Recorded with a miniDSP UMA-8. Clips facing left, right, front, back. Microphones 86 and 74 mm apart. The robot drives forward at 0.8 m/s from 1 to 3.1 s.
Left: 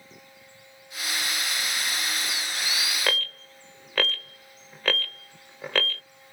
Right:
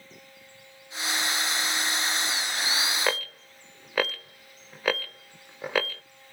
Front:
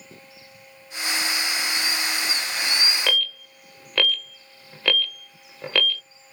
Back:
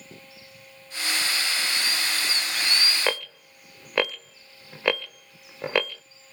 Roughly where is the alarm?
Behind right.